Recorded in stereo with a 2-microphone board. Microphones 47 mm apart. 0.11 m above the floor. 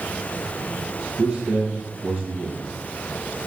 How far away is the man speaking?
About 3 m.